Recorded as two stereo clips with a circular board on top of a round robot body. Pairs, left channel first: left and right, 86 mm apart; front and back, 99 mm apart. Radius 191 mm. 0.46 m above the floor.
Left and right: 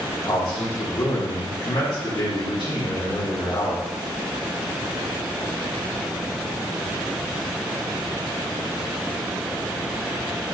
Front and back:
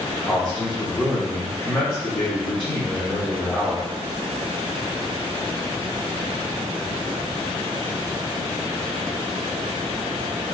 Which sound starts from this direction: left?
A man speaking, at 0.2 s.